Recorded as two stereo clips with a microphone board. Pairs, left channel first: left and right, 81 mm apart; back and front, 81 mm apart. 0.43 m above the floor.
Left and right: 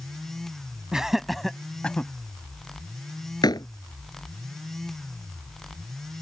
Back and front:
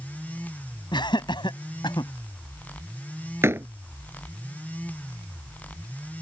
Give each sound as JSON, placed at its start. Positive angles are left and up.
{"t": 0.9, "sound": "laughter", "azimuth_deg": -170}
{"t": 3.4, "sound": "a door slam", "azimuth_deg": 60}